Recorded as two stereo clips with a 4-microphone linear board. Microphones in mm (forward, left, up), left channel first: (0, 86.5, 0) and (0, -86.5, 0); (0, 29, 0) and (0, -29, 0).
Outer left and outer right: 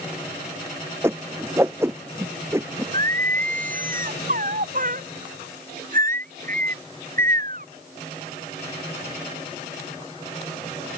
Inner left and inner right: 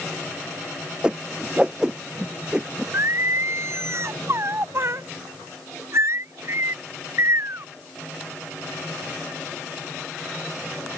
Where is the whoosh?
15° right (ahead or behind).